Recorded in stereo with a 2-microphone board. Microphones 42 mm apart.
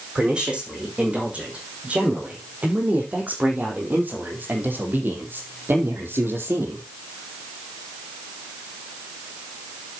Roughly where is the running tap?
I don't hear a running tap.